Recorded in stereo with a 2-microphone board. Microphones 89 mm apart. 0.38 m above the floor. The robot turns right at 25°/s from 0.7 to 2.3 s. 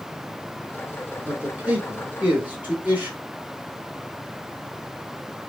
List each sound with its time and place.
1.3 s a man speaking: 20° right (ahead or behind), 1.0 m; by 3.2 s 15° right (ahead or behind), 1.0 m